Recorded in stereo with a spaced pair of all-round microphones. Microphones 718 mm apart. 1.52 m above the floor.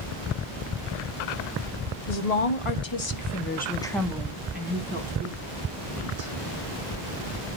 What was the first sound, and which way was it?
A woman speaking, 65° left (ahead or behind).